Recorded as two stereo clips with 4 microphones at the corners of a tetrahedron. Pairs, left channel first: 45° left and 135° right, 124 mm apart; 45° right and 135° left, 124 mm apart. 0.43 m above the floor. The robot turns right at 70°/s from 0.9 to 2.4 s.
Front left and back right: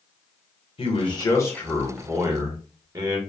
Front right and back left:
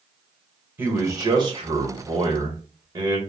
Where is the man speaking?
70° left, 1.1 m; by 3.2 s 175° left, 1.1 m.